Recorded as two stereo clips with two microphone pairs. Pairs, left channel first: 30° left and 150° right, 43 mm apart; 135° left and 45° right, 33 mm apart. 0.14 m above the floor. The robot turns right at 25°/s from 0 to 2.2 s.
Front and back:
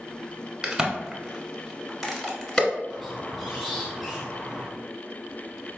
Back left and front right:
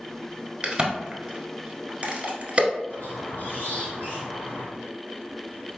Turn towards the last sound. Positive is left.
turn(degrees=120)